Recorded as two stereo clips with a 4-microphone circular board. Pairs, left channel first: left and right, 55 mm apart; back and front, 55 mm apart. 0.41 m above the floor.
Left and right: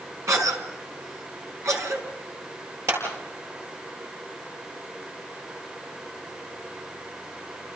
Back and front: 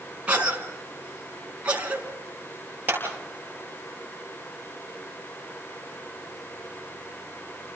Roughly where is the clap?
Ahead right.